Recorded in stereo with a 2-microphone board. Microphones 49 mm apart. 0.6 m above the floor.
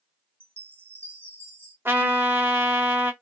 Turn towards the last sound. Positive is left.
turn(degrees=-50)  # may be behind; listen again after turning